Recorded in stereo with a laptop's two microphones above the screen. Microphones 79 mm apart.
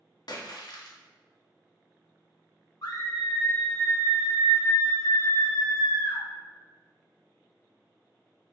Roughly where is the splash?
Left.